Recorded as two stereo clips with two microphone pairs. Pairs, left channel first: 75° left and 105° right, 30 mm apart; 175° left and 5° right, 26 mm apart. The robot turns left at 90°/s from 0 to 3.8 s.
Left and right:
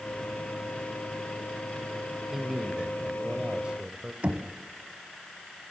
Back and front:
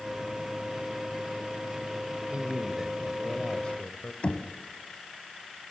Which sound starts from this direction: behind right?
Knocking, at 4.2 s.